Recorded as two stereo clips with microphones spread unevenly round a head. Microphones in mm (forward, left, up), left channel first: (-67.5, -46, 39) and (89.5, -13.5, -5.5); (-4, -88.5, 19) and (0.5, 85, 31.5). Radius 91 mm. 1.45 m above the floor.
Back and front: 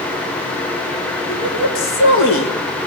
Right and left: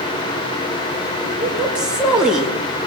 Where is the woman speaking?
175° left, 2.5 m.